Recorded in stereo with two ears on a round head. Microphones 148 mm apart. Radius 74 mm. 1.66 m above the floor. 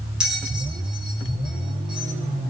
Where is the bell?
5° right (ahead or behind), 5 m.